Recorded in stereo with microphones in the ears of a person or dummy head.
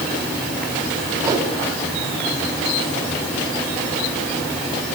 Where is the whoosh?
20° right (ahead or behind), 3.5 m.